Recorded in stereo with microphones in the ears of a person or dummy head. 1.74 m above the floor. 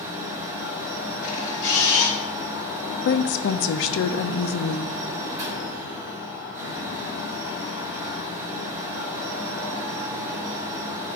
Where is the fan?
15° right (ahead or behind), 2.5 m.